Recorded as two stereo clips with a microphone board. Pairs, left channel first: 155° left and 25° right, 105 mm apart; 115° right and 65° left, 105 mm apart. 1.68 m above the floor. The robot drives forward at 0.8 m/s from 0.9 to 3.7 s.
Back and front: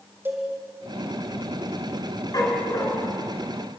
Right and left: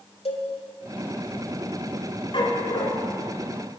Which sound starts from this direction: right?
A cowbell, at 0.2 s.